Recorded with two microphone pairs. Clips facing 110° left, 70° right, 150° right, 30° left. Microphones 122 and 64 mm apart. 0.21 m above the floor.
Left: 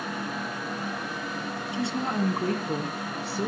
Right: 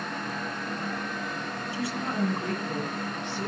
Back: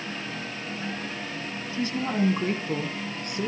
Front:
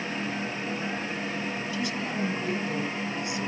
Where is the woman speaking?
170° left, 1.7 m; by 3.5 s 165° left, 3 m.